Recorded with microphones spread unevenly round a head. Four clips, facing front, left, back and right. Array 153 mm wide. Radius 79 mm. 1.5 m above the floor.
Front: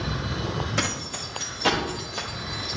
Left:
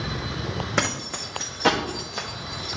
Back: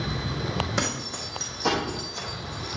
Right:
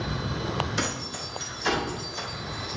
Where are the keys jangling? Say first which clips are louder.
Left 4 dB, even; 100° left, 1.7 m; by 2.8 s 60° left, 1.3 m.